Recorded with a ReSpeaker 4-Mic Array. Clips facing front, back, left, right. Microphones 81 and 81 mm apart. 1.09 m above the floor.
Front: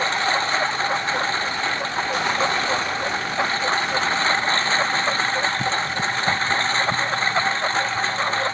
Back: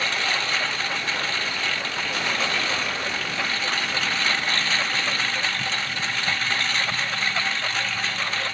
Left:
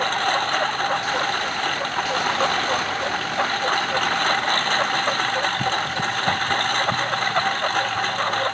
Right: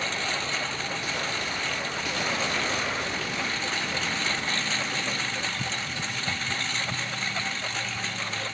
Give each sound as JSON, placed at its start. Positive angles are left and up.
{"t": 0.0, "sound": "a lawn mower", "azimuth_deg": 55}